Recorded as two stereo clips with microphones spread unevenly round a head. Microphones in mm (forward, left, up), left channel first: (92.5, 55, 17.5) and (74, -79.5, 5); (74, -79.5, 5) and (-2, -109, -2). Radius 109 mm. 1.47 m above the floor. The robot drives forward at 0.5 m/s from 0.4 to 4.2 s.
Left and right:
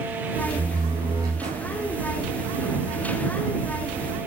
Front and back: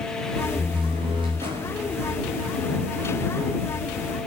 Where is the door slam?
170° right, 5 m; by 1.8 s 175° right, 5.5 m.